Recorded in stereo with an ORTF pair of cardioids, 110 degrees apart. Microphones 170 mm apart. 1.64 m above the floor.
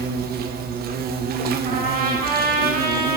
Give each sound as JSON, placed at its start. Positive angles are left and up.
{"t": 0.0, "sound": "an insect", "azimuth_deg": -65, "distance_m": 1.4}
{"t": 1.6, "sound": "a trumpet", "azimuth_deg": -60, "distance_m": 6.0}